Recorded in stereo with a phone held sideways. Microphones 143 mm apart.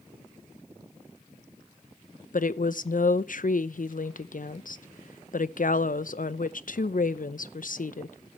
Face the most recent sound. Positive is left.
turn(degrees=70)  # may be behind; listen again after turning